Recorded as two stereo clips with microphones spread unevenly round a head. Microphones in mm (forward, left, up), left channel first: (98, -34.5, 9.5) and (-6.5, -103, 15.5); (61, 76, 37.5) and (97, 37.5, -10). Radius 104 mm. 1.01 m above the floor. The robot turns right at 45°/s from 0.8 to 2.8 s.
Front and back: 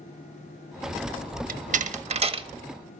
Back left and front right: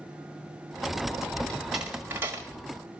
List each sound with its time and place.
1.5 s a door slam: 135° right, 1.2 m; by 2.5 s 90° right, 1.2 m